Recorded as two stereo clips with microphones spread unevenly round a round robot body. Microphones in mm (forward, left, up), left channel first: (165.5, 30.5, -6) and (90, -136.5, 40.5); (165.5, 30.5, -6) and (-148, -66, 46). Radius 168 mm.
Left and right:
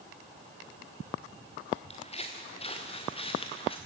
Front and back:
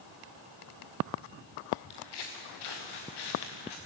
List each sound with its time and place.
1.9 s footsteps: 5° left, 3 m; by 3.8 s straight ahead, 4 m